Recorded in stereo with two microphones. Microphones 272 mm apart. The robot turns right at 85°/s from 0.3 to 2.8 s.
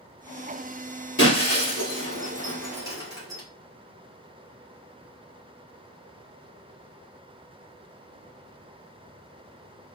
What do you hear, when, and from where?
1.2 s breaking glass: 50° left (ahead or behind), 2.5 m; by 3.4 s 10° right (ahead or behind), 2.5 m